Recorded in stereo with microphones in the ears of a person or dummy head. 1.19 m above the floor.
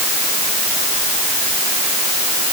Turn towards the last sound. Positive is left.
No sound to turn to.